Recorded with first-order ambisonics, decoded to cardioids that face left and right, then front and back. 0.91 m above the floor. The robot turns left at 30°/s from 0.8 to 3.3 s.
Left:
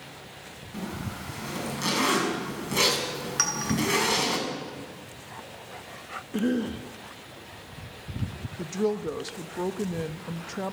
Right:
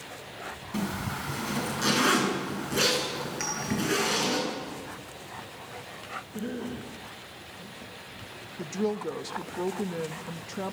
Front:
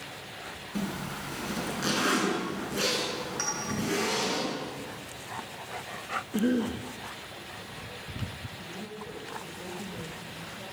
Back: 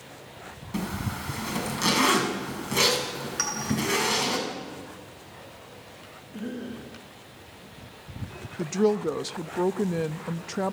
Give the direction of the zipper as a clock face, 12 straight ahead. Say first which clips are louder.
Right 3 dB, back 3 dB; 5 o'clock.